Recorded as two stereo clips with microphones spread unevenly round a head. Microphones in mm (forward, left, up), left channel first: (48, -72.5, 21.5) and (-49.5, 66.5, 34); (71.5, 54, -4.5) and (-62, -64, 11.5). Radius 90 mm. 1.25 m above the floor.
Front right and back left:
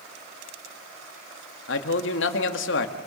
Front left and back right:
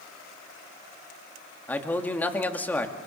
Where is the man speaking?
40° right, 2 m.